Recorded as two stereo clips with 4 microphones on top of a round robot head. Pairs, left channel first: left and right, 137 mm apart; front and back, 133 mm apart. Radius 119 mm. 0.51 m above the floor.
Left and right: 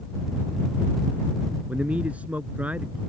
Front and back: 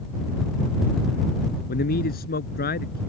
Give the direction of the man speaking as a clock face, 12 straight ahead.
12 o'clock.